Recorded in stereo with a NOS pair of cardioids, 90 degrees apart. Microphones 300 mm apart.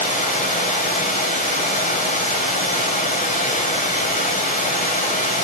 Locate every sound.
0.0 s running water: 25° left, 3 m